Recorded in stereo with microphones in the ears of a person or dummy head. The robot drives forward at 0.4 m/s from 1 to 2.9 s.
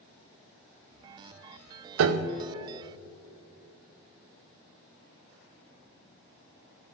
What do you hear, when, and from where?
2.0 s a piano: 85° right, 0.5 m; by 2.5 s 65° right (ahead or behind), 0.6 m